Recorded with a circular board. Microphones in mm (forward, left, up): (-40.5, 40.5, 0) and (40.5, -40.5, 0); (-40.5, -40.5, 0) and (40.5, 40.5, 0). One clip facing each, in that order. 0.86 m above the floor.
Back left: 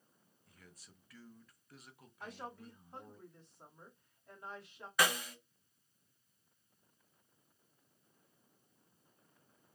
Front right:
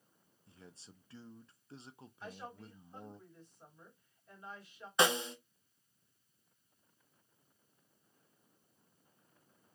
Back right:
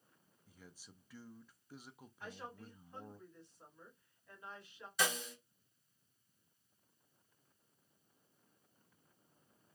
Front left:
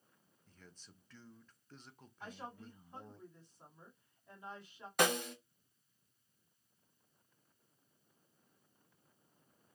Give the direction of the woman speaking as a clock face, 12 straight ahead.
8 o'clock.